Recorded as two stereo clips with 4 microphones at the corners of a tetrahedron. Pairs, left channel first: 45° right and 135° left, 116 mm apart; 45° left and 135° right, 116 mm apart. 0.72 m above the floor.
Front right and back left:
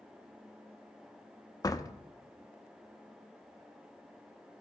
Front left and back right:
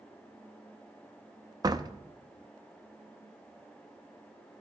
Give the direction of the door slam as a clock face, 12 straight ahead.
3 o'clock.